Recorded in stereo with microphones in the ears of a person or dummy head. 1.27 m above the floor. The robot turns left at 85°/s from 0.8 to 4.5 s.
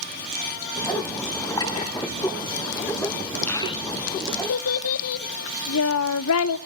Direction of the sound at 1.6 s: 20° left (ahead or behind).